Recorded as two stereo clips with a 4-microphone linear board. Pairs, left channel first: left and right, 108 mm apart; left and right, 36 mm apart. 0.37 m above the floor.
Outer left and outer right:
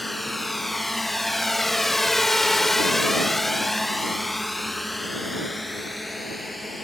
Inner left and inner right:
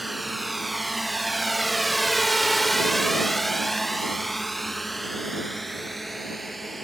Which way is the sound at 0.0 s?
Centre (ahead or behind).